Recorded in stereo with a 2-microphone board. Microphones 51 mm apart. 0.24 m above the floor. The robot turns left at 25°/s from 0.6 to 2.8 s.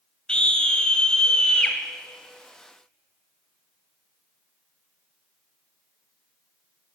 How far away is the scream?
About 1.0 m.